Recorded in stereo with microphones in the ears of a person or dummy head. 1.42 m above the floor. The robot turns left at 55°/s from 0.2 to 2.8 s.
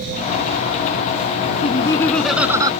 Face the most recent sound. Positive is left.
turn(degrees=-30)